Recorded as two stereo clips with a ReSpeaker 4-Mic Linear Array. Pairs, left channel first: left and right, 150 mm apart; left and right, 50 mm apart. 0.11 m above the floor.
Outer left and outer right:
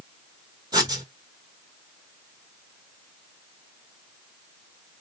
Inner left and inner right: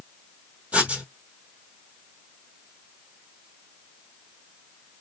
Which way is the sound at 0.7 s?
30° right (ahead or behind).